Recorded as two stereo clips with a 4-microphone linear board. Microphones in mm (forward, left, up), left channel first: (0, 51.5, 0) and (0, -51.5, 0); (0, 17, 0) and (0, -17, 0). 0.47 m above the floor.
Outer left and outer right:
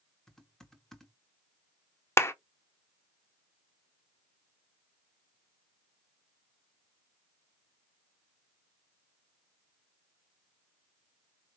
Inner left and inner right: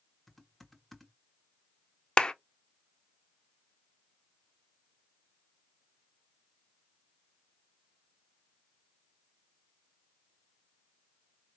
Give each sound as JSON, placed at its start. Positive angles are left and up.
{"t": 0.3, "sound": "typing on a keyboard", "side_deg": 5, "distance_m": 1.0}
{"t": 2.2, "sound": "a clap", "side_deg": 25, "distance_m": 0.5}